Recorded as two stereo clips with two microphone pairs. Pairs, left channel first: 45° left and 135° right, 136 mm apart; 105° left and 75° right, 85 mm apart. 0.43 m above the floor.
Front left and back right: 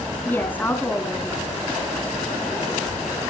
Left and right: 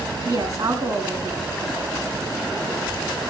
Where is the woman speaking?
30° right, 4 m.